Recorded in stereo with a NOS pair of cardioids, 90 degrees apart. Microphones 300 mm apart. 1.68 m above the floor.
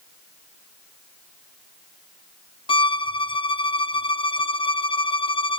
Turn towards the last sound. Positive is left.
turn(degrees=15)